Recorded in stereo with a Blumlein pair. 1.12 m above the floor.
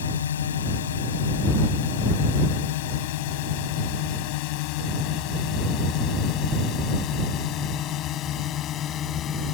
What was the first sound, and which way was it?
A drone, 65° left.